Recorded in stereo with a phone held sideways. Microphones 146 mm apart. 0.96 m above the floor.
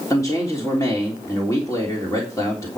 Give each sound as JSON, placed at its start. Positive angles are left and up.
{"t": 0.1, "sound": "a man speaking", "side_deg": 20, "distance_m": 3.0}